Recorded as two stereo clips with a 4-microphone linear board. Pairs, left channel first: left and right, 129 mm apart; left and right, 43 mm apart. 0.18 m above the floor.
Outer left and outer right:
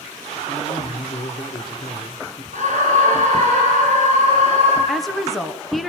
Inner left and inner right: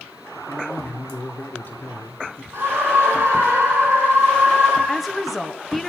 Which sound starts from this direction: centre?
A woman speaking, at 4.9 s.